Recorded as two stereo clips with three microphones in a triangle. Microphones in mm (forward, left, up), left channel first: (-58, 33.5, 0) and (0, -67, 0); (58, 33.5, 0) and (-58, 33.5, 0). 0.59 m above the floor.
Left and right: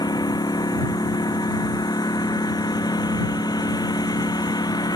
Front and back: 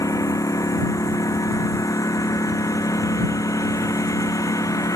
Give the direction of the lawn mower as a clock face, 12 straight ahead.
10 o'clock.